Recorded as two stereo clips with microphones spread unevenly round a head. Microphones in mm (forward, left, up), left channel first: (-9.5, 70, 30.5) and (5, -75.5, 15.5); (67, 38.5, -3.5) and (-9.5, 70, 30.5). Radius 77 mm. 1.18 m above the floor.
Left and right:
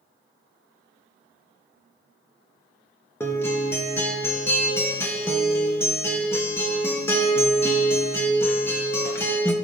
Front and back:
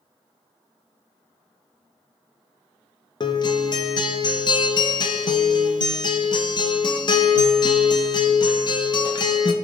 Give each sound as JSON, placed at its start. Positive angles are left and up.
{"t": 3.2, "sound": "a guitar", "azimuth_deg": 25, "distance_m": 0.8}